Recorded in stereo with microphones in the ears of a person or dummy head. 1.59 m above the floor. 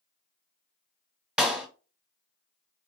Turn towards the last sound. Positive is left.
turn(degrees=-5)  # may be behind; listen again after turning